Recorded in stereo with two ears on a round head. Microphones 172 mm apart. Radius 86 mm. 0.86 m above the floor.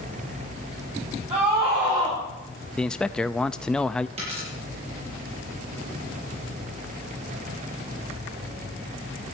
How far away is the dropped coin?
About 10 m.